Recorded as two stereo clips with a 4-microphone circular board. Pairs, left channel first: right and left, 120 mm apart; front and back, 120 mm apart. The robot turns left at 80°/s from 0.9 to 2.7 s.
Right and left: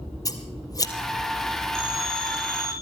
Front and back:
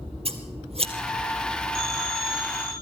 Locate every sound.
0.2 s scissors: 150° right, 2 m
1.8 s a phone ringing: 5° right, 9.5 m; by 2.7 s 80° right, 9.5 m